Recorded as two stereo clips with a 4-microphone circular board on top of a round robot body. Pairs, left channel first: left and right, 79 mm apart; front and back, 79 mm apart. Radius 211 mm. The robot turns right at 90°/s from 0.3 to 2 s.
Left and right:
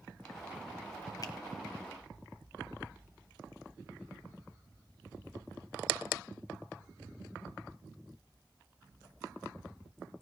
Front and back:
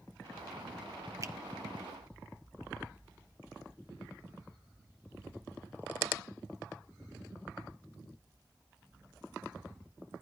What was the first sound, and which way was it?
A finger snap, 130° left.